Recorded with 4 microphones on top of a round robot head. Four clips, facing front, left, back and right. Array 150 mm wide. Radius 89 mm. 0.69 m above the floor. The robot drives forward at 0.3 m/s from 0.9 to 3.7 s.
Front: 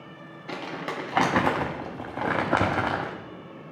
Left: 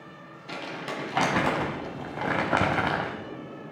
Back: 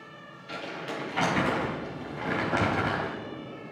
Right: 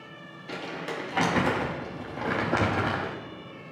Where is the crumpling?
10° left, 0.9 m; by 3.2 s 65° left, 0.5 m.